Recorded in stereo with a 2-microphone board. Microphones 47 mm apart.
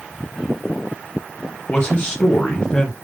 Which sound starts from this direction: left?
A man speaking, at 1.7 s.